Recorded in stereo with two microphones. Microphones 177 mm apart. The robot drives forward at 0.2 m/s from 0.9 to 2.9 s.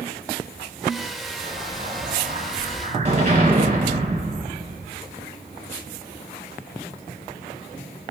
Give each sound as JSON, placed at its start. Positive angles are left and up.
{"t": 1.4, "sound": "an explosion", "side_deg": -45, "distance_m": 1.3}